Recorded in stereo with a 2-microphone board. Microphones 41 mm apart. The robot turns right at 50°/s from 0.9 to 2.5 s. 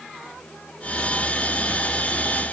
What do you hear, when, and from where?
Only background noise.